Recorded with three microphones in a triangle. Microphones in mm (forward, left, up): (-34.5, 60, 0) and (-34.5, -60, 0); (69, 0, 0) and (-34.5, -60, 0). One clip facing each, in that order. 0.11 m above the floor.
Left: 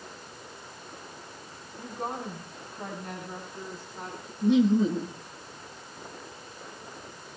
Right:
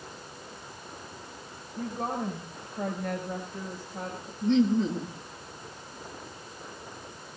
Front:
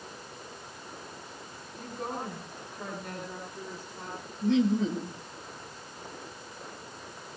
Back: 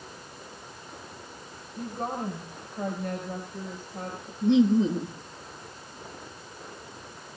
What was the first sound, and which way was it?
A woman speaking, 110° right.